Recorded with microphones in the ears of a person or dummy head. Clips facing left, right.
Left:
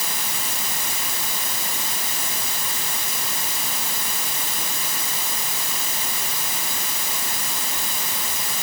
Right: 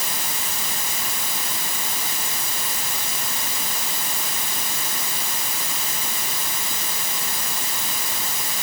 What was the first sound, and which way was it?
Only background noise.